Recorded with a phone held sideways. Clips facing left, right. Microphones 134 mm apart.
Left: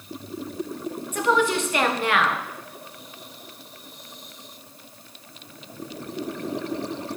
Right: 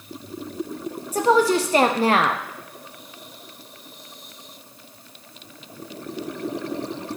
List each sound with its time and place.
1.1 s a woman speaking: 35° right (ahead or behind), 0.7 m